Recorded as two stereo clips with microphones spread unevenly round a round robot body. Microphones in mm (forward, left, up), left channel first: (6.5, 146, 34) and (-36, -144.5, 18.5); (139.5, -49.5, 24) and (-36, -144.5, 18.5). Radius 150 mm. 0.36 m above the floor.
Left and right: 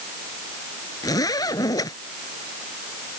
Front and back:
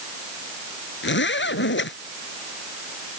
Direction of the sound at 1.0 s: 5° left.